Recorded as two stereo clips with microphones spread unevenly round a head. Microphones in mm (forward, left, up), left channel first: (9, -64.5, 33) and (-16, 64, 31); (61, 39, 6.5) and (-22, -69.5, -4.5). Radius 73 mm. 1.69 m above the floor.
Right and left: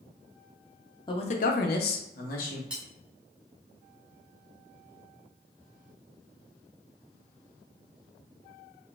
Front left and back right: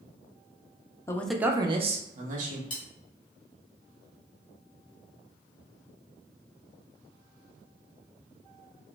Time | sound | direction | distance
1.1 | a man speaking | 20° right | 0.5 m
2.7 | cutlery clinking | 20° left | 1.2 m